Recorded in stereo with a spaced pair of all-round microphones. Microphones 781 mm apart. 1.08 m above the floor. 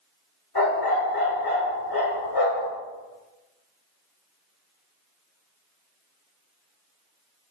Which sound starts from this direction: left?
A dog barking, at 0.6 s.